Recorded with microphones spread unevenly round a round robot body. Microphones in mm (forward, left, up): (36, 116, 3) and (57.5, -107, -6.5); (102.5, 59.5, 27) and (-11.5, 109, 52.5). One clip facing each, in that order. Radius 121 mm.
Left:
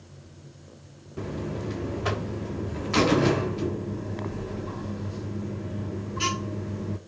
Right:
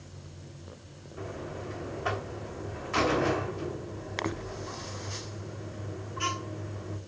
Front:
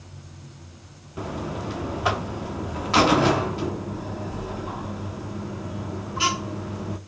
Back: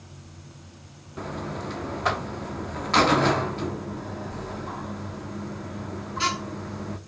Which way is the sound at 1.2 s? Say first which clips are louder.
Left 7 dB, front 2 dB; 60° left.